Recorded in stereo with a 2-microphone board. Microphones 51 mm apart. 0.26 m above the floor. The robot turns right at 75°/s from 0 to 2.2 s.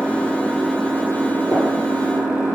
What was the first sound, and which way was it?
An engine running, 145° left.